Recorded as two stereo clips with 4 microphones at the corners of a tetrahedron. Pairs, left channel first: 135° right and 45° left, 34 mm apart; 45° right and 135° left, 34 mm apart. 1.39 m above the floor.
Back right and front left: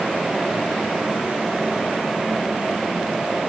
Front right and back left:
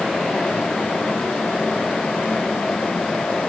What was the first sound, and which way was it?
Only background noise.